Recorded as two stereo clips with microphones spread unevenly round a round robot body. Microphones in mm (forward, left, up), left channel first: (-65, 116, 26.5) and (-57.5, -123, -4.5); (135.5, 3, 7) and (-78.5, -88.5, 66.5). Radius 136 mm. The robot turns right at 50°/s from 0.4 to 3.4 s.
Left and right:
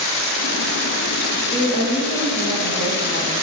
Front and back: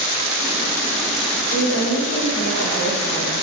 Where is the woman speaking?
5° right, 3.5 m; by 3.4 s 90° left, 3.5 m.